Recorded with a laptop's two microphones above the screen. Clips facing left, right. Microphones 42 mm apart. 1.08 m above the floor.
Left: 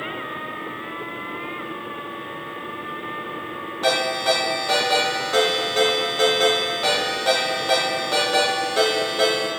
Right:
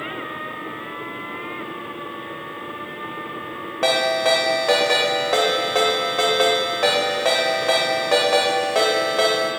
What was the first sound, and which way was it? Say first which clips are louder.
A ringtone: right 2 dB; 80° right.